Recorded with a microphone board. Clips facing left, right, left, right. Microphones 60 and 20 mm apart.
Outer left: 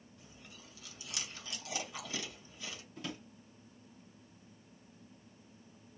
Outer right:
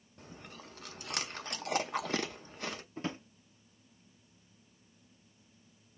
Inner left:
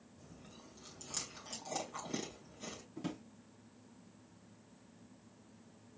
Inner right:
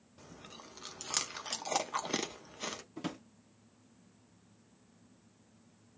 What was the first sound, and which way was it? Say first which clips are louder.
Chewing: outer right 9 dB, inner right 7 dB; 50° right (ahead or behind).